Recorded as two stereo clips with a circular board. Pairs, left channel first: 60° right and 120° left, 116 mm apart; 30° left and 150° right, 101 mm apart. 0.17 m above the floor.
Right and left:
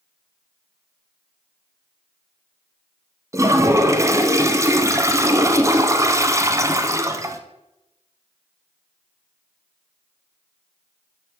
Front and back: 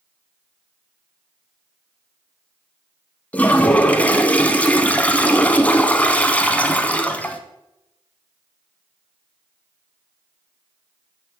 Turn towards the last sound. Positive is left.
turn(degrees=90)